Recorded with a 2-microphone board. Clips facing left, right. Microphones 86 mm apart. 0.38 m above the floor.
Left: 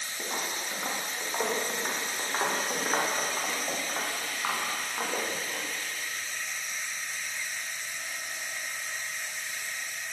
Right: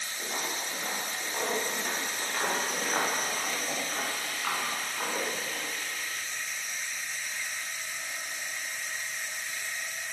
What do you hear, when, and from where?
0.2 s footsteps: 35° left (ahead or behind), 10 m; by 5.6 s 30° left (ahead or behind), 14.5 m